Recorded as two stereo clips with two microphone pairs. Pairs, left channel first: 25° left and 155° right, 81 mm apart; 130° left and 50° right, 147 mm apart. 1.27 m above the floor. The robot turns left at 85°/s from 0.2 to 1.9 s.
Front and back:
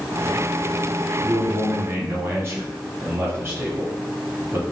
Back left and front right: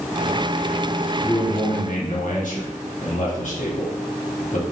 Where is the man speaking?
150° right, 1.1 m; by 4.6 s 155° left, 1.1 m.